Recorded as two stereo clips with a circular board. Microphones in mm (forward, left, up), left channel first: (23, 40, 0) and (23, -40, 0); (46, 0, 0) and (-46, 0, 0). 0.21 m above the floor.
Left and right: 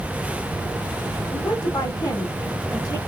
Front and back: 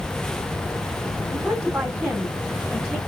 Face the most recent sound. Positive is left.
turn(degrees=100)